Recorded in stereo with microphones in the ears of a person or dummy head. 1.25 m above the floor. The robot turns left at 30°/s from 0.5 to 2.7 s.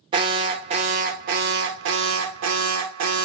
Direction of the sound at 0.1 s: 30° right.